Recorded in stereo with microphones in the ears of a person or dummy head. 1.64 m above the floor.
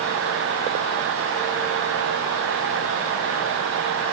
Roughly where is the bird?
No bird in this recording.